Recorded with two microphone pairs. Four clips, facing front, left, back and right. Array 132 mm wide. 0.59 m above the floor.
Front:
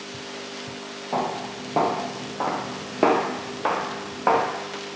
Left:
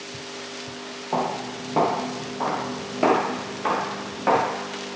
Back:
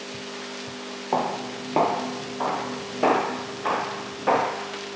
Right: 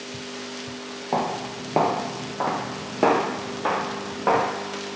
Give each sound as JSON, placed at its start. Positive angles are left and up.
{"t": 1.1, "sound": "footsteps", "azimuth_deg": -150, "distance_m": 0.8}